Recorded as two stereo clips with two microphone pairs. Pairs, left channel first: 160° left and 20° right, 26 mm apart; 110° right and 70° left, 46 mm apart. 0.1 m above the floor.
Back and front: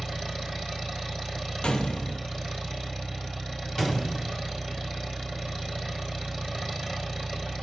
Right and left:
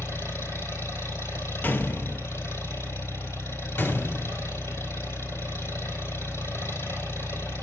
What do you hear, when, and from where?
0.0 s an engine running: 110° right, 3 m
1.6 s a gunshot: 145° right, 0.8 m
3.8 s a gunshot: 120° right, 1.9 m